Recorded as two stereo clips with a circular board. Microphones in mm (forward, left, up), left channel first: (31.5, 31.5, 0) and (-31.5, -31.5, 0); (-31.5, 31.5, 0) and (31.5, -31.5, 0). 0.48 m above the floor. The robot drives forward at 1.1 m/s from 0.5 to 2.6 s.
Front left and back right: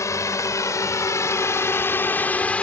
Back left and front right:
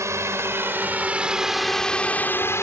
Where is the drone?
Straight ahead; by 2.6 s 110° left.